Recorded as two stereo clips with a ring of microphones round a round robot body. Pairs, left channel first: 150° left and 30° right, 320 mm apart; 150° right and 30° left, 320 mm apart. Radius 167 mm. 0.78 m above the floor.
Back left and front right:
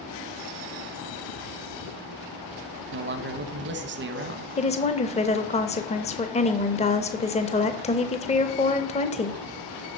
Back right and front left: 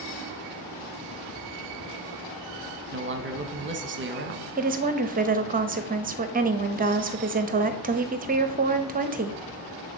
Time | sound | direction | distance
2.9 | a man speaking | straight ahead | 1.0 m
4.6 | a woman speaking | 85° left | 0.7 m